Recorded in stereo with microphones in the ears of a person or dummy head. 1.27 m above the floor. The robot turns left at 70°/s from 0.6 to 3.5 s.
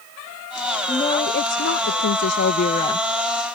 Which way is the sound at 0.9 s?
165° left.